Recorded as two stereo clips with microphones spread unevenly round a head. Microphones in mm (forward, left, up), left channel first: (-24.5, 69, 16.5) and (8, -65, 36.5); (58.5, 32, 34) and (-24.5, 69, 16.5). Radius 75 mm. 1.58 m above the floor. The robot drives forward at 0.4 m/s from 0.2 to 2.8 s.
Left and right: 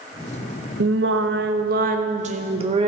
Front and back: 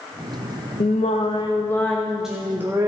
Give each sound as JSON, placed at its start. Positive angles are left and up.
{"t": 0.8, "sound": "singing", "azimuth_deg": -65, "distance_m": 0.7}